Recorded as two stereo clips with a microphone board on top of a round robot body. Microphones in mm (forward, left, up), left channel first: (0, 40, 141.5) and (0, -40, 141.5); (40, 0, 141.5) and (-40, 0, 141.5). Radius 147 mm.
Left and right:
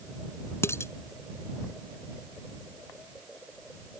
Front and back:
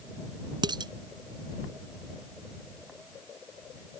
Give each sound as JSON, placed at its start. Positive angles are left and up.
{"t": 0.6, "sound": "dishes clattering", "azimuth_deg": 150}